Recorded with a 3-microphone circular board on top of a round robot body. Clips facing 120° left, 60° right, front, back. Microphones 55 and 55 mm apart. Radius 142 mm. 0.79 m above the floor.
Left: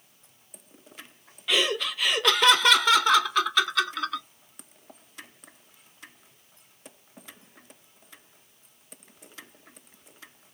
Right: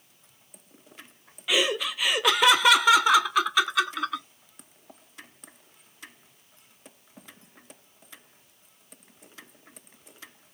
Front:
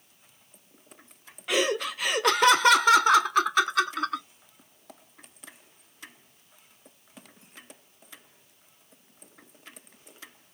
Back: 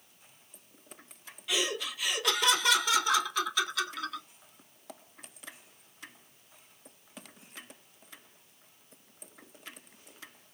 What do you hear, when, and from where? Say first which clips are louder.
1.5 s laughter: even, front 7 dB; 20° left, 0.6 m